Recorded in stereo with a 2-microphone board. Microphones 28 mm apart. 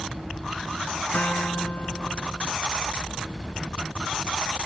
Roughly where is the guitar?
Left.